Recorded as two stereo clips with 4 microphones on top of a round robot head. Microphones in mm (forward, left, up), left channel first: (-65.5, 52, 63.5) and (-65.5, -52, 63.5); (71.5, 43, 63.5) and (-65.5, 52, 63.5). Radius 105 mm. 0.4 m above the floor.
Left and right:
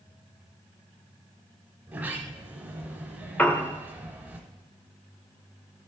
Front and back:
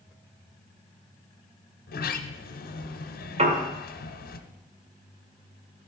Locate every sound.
1.9 s a sliding door: 10° right, 1.1 m
3.4 s a piano: 160° left, 1.9 m